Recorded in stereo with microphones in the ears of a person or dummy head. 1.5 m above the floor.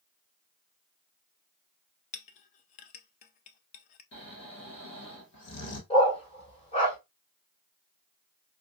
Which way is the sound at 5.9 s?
40° left (ahead or behind).